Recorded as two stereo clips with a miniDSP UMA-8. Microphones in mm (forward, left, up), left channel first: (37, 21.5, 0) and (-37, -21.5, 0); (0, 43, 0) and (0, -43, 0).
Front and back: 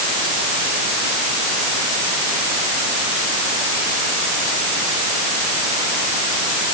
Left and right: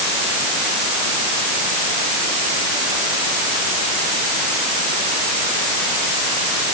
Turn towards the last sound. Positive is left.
No sound to turn to.